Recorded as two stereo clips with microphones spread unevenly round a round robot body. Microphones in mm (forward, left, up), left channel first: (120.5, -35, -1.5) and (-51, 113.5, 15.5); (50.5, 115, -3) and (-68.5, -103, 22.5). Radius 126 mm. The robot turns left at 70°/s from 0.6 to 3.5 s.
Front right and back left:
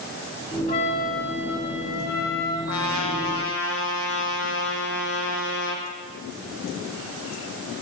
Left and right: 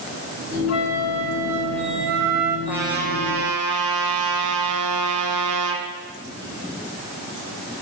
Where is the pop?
I don't hear a pop.